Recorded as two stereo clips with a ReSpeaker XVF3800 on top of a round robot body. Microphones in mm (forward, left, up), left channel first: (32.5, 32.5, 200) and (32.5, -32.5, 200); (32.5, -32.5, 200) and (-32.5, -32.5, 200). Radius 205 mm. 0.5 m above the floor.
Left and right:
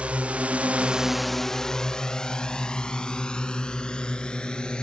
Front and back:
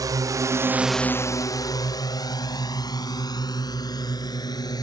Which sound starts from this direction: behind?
A drone, at 0.0 s.